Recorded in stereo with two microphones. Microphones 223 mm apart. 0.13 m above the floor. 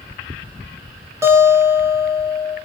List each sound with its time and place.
1.2 s a guitar: 10° right (ahead or behind), 2.0 m